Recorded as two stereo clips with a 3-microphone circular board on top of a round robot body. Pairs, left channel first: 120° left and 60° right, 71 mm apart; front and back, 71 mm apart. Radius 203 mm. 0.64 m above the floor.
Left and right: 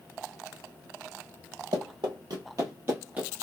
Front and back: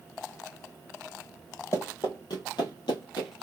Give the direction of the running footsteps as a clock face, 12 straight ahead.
2 o'clock.